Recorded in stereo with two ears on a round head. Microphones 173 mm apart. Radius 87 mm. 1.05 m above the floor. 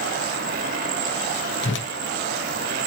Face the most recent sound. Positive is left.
turn(degrees=65)  # may be behind; listen again after turning